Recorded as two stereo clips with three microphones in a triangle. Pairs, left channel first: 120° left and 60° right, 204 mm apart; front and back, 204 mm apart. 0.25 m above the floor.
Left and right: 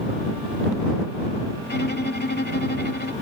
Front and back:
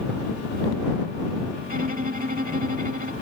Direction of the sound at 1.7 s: 145° left.